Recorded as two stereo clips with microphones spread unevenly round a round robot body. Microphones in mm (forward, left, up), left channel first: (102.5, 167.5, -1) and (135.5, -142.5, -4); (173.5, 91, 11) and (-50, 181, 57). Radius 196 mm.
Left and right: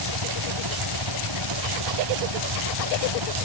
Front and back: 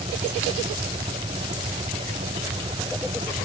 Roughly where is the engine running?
Behind right.